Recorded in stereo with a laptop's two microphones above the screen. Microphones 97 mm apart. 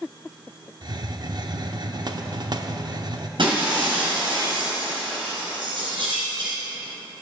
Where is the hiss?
50° right (ahead or behind), 0.6 m.